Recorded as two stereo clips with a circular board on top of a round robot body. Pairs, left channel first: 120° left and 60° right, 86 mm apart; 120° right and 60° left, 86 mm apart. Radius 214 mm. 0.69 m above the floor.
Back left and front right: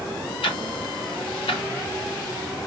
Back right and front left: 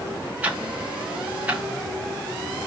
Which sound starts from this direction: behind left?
Ticking, at 0.4 s.